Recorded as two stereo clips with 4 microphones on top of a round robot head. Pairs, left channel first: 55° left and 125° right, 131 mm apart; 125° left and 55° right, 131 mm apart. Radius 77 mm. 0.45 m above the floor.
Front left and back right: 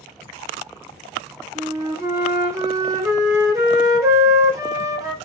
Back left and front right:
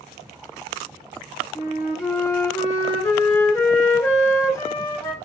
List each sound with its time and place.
1.6 s a flute: straight behind, 0.9 m